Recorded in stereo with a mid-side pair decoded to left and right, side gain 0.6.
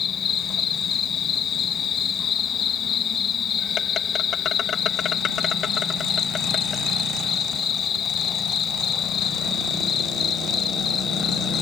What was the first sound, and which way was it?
An insect, 40° left.